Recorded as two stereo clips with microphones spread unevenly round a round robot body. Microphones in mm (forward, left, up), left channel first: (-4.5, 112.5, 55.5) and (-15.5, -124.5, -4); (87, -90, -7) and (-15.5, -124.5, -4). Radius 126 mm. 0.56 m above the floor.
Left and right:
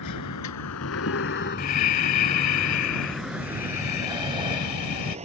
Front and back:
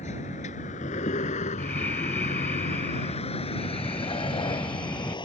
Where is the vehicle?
70° left; by 5.3 s 25° right.